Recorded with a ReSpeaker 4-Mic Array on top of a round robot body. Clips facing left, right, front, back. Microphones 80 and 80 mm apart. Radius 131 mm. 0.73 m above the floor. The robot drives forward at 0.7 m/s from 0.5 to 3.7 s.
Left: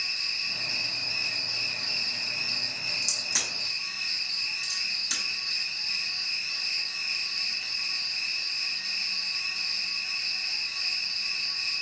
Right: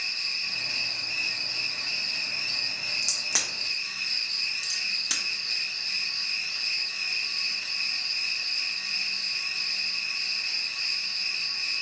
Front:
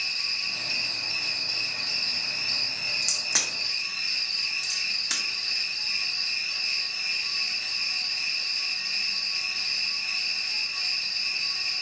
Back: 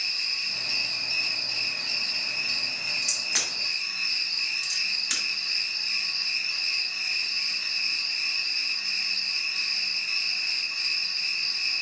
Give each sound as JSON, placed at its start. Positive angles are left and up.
{"t": 0.0, "sound": "an insect", "azimuth_deg": -45, "distance_m": 3.0}
{"t": 3.0, "sound": "a crack", "azimuth_deg": -60, "distance_m": 1.5}